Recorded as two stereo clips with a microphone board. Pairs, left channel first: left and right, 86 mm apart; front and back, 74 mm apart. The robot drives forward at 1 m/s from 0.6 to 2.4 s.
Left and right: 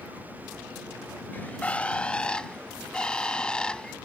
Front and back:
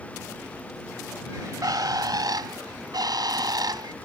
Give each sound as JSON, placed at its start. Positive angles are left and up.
{"t": 1.3, "sound": "a bird", "azimuth_deg": 155}